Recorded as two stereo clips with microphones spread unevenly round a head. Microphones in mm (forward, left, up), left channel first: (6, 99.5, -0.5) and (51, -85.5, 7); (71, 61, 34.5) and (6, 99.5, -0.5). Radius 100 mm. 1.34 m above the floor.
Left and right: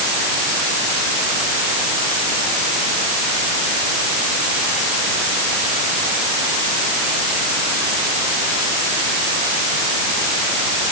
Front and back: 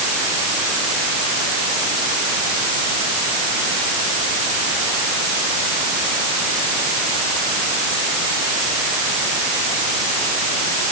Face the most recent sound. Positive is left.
No sound to turn to.